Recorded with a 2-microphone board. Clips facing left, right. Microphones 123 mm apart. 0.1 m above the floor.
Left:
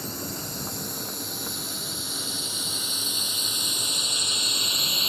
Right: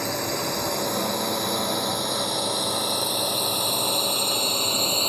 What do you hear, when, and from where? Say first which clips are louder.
0.0 s a drone: right 8 dB; 75° right (ahead or behind); by 5.1 s 45° right (ahead or behind)